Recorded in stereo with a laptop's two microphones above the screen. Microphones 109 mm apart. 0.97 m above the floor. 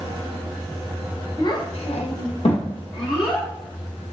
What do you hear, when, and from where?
1.4 s a child speaking: 35° left (ahead or behind), 0.5 m; by 3.5 s 40° left (ahead or behind), 1.1 m